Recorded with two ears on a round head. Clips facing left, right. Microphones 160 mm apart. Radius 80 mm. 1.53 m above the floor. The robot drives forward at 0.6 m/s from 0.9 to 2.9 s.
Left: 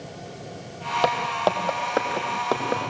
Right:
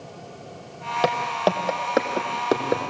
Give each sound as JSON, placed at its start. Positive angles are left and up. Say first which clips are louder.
{"t": 1.0, "sound": "footsteps", "louder": "right 1 dB", "side_deg": -15, "distance_m": 3.0}